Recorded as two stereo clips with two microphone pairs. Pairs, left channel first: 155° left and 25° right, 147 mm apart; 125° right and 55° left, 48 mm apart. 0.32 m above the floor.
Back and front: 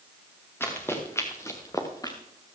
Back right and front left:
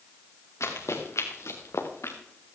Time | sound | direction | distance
0.6 | running footsteps | 130° right | 3.5 m